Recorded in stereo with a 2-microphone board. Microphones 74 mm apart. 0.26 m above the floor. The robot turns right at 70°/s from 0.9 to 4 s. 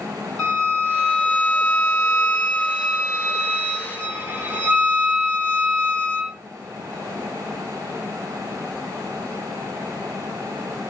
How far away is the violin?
About 1.5 m.